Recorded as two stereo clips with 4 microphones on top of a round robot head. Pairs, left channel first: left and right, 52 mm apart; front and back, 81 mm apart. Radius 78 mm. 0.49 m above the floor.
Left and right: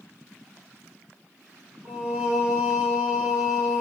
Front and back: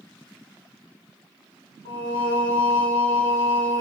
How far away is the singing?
About 1.6 m.